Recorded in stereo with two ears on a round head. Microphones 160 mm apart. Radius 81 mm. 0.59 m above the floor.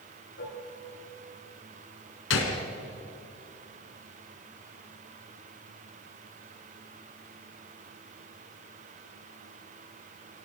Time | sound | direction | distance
0.4 | dishes clattering | 75° left (ahead or behind) | 6.5 m
2.3 | a gunshot | 80° left | 3 m